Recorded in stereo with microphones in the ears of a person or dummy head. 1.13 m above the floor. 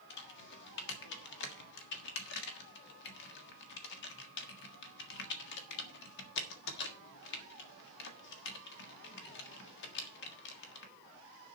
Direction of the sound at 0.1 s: 65° left (ahead or behind).